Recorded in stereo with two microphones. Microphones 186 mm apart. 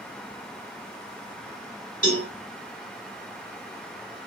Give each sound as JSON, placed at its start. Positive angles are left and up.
{"t": 2.0, "sound": "a cowbell", "side_deg": 45, "distance_m": 1.2}